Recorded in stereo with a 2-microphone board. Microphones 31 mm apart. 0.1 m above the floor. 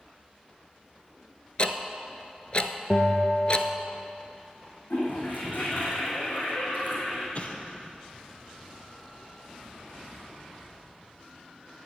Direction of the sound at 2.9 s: 45° left (ahead or behind).